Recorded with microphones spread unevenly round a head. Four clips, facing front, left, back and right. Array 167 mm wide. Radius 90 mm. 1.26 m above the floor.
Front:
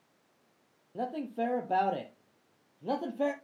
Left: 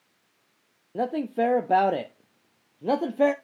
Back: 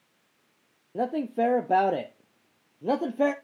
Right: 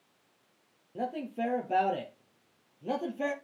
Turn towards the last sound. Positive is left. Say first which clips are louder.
# left 8 dB, back 7 dB
turn(degrees=135)